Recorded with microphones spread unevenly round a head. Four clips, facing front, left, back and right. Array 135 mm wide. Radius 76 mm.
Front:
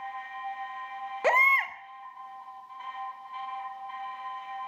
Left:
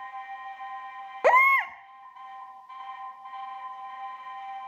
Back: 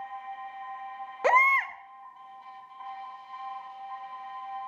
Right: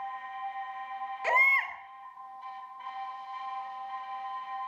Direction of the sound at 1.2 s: 85° left.